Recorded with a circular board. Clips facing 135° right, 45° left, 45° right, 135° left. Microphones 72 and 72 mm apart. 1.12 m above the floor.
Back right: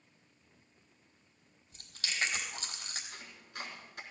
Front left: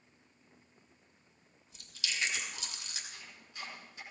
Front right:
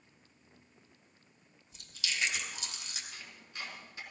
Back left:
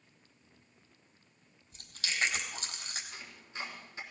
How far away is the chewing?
About 3 m.